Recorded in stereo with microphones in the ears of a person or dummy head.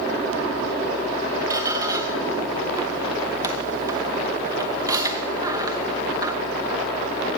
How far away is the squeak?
About 0.8 m.